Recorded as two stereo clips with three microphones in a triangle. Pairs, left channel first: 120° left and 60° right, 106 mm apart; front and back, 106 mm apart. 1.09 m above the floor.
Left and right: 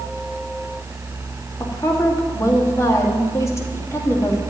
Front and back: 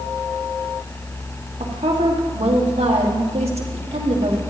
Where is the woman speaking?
Straight behind, 2 m.